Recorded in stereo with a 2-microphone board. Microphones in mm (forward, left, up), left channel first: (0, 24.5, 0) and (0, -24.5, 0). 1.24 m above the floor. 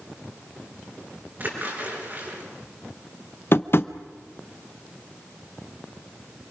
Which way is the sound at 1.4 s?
40° right (ahead or behind).